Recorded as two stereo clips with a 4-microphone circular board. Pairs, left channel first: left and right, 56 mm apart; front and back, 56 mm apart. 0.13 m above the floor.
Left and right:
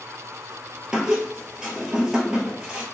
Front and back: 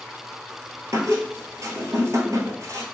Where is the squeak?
165° right, 1.3 m.